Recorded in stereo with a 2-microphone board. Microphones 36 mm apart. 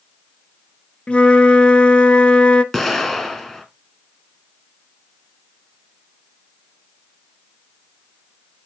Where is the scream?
No scream in this recording.